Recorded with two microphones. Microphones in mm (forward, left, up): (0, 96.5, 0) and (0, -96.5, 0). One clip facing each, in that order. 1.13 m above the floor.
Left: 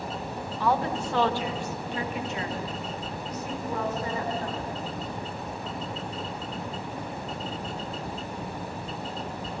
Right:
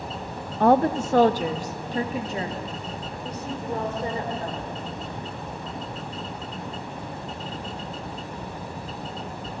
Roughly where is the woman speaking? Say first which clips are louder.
Right 8 dB; right.